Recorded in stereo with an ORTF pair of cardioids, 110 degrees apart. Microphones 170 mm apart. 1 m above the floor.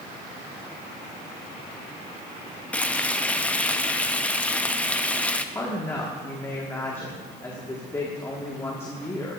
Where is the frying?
10° left, 0.6 m.